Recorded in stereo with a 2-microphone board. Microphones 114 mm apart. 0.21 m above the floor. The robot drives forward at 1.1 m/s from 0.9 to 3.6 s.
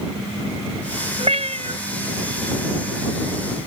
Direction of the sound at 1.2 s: 60° right (ahead or behind).